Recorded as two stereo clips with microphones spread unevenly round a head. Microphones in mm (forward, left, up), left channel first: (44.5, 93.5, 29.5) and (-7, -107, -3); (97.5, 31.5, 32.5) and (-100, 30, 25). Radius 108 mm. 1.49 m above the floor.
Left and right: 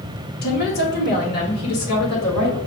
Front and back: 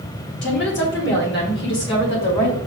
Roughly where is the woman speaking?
Ahead left.